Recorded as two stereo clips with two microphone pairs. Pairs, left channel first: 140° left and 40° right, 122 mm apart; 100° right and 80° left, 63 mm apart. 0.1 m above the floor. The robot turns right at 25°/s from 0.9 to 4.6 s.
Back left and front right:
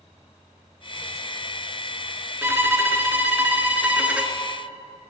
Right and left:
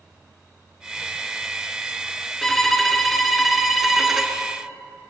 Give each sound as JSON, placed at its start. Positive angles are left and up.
{"t": 2.4, "sound": "a violin", "azimuth_deg": -30, "distance_m": 1.2}